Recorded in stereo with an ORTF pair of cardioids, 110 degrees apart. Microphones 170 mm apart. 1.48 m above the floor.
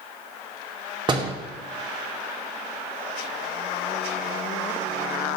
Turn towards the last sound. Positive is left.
turn(degrees=-30)